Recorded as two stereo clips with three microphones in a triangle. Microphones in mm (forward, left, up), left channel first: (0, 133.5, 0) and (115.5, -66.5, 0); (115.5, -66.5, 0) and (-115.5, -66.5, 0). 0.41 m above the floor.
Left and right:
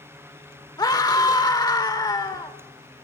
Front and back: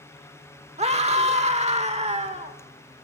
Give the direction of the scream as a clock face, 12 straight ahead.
6 o'clock.